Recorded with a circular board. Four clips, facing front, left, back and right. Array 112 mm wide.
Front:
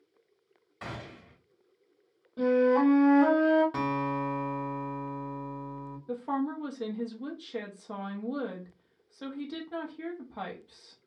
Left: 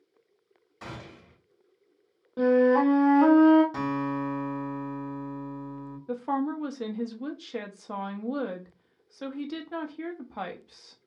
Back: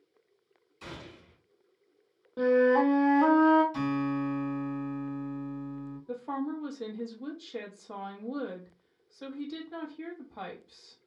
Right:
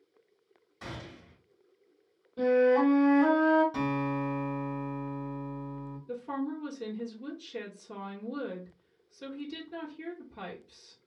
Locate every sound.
0.8 s a gunshot: 20° left, 1.8 m
2.4 s a flute: 120° left, 0.9 m
3.7 s a guitar: 20° left, 1.4 m
6.1 s a woman speaking: 80° left, 0.7 m